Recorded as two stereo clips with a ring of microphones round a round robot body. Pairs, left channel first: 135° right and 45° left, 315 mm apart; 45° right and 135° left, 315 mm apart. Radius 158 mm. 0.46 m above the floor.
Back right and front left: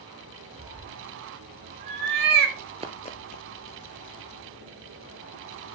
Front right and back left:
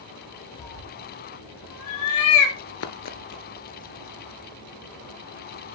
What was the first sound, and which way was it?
A cat meowing, 30° right.